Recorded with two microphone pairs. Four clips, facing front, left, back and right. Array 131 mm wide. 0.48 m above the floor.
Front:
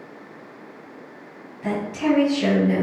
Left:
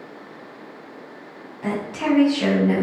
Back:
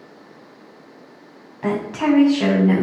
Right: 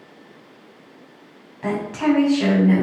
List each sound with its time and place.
1.6 s a woman speaking: 170° right, 4 m; by 2.8 s straight behind, 4 m